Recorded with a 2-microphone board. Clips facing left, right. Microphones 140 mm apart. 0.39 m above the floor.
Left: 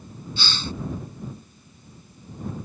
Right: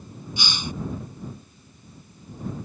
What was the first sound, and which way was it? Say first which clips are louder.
A hiss: even; 15° right (ahead or behind).